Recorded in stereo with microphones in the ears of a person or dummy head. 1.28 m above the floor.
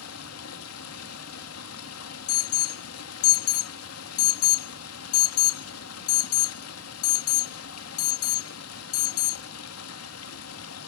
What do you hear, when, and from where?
0.0 s running water: 85° left, 1.7 m
2.3 s an alarm: 75° left (ahead or behind), 0.7 m